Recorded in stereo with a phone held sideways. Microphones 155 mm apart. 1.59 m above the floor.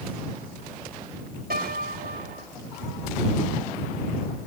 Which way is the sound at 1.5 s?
85° right.